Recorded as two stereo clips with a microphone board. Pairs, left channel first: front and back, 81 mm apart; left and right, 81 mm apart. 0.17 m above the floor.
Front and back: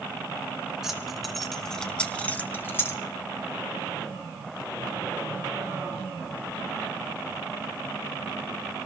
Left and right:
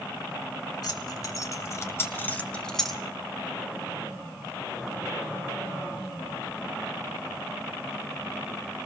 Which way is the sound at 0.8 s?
95° left.